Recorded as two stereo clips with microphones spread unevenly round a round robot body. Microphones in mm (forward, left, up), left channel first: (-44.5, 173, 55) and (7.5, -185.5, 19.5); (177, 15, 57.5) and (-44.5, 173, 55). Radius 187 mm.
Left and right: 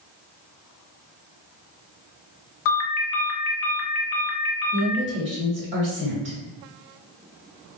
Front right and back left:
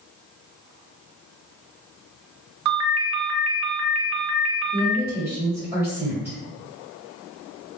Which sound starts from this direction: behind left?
A ringtone, at 2.6 s.